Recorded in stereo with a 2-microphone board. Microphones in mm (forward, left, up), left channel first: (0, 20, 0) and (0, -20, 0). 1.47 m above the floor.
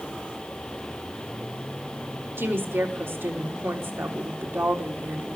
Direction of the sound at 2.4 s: 75° right (ahead or behind).